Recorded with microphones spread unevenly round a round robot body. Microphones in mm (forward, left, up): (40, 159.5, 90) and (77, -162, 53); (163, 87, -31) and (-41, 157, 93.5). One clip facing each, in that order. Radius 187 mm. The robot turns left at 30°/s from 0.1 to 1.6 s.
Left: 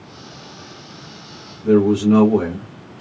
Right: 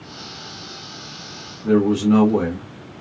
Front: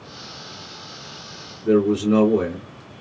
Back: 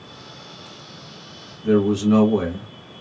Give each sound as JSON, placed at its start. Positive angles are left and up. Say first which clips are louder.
{"t": 1.6, "sound": "a man speaking", "louder": "left 2 dB, even", "azimuth_deg": -165, "distance_m": 0.9}